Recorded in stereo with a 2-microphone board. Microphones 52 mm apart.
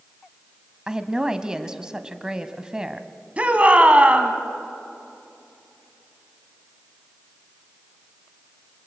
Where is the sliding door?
No sliding door in this recording.